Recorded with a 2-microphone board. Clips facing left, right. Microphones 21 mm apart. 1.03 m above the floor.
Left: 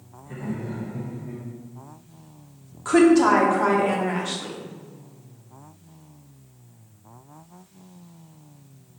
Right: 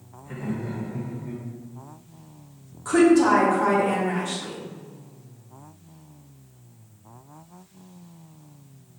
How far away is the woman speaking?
About 0.8 m.